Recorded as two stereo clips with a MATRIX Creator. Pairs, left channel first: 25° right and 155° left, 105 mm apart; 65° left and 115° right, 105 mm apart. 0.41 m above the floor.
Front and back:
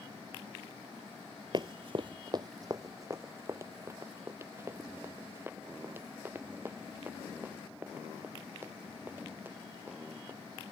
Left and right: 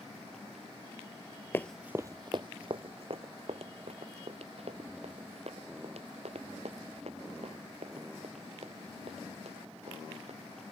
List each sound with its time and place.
1.5 s running footsteps: 130° left; by 10.4 s 130° right